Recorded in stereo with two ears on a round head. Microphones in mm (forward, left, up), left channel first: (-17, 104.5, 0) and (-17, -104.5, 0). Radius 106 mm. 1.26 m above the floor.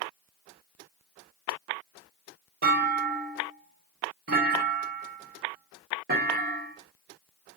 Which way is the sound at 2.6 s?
40° right (ahead or behind).